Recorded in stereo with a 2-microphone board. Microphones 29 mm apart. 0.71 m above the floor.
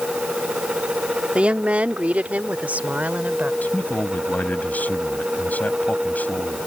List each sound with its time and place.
1.4 s a woman speaking: 50° right (ahead or behind); by 3.5 s 75° right (ahead or behind)
3.6 s a man speaking: 80° left